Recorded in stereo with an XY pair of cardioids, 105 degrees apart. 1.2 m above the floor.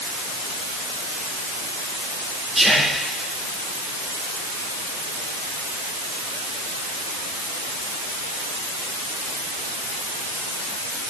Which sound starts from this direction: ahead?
Whispering, at 2.5 s.